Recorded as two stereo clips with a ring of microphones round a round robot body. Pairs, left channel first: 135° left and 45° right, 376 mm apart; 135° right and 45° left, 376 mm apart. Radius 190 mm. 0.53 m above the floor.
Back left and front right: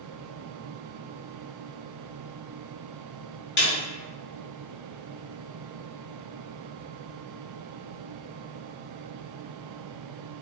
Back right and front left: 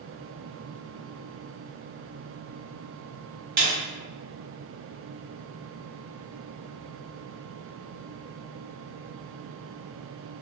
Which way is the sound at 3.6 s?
80° left.